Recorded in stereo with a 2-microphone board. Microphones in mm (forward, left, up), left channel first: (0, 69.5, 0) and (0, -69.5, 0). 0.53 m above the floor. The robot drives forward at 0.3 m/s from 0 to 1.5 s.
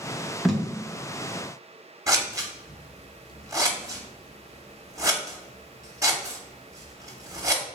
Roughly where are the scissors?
Right.